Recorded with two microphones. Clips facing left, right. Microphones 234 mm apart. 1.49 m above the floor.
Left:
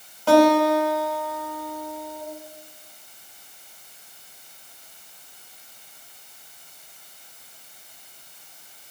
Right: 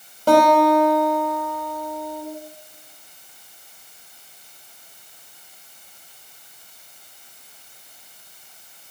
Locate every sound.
0.3 s a guitar: 40° right (ahead or behind), 1.0 m